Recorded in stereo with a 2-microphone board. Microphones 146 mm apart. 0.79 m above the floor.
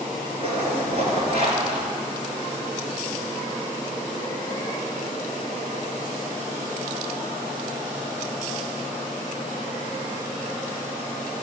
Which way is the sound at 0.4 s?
45° right (ahead or behind).